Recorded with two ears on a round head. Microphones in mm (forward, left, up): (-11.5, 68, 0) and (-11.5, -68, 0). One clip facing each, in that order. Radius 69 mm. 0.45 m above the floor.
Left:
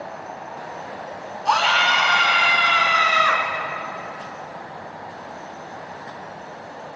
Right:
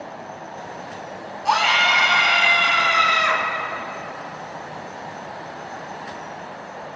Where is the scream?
5° right (ahead or behind), 3 m; by 3.4 s 30° right (ahead or behind), 4 m.